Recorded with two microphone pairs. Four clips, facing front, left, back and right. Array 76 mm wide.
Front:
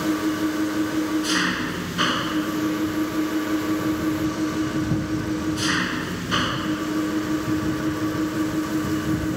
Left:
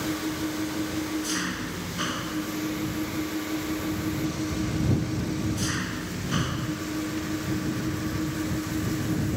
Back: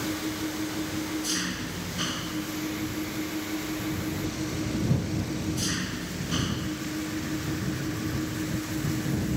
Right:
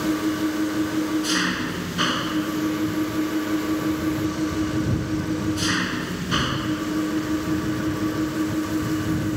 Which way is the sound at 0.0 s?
25° right.